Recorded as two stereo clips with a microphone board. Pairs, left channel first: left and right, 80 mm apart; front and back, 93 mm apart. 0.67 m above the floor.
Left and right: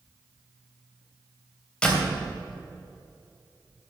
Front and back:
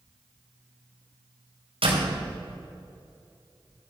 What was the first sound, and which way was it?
A door slam, 170° left.